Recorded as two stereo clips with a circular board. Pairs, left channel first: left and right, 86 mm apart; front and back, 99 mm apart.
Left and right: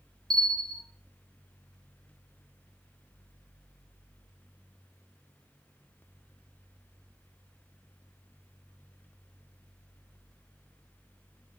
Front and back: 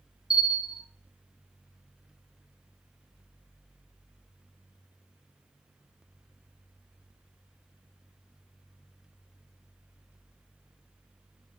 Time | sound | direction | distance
0.3 | a bell | 100° right | 0.9 m